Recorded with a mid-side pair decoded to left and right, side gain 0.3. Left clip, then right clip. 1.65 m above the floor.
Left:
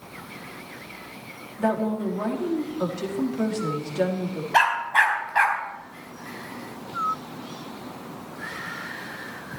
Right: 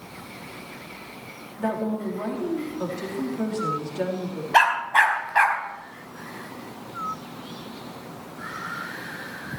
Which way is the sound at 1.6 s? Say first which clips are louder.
Left 3 dB; 35° left.